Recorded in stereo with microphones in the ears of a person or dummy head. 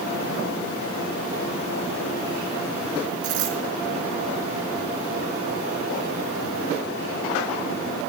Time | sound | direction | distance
3.2 | a dropped coin | 55° right (ahead or behind) | 3.5 m